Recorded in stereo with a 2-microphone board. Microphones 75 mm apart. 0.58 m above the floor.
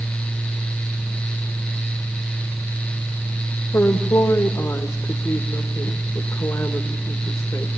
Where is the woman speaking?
35° left (ahead or behind), 1.8 m.